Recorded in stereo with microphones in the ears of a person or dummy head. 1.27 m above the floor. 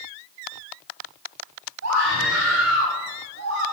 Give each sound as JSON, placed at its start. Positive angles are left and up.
{"t": 1.8, "sound": "a scream", "side_deg": -80, "distance_m": 9.0}